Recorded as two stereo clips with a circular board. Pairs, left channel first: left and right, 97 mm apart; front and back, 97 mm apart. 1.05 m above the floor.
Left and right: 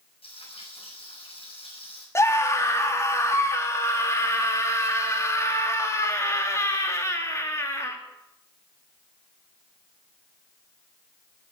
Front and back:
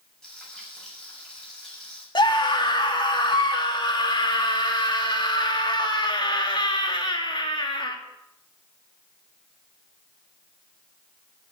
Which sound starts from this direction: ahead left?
A scream, at 2.1 s.